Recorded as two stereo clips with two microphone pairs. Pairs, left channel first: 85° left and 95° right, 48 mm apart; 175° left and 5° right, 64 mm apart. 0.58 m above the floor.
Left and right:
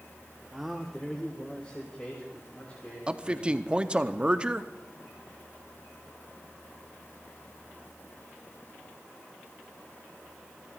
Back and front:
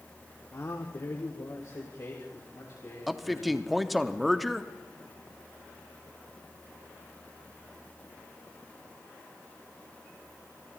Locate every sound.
0.5 s a man speaking: 170° right, 1.0 m; by 4.1 s 135° left, 4.5 m
3.1 s a man speaking: 100° right, 0.7 m